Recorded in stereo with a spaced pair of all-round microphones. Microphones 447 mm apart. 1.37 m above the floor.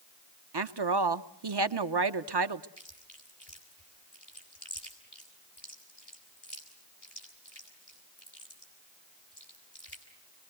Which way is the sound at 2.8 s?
60° left (ahead or behind).